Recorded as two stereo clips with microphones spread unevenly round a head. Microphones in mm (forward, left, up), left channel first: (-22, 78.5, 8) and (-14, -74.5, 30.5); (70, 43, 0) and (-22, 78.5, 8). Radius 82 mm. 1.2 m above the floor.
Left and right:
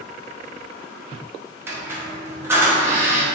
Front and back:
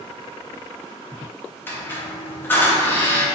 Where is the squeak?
70° right, 0.5 m.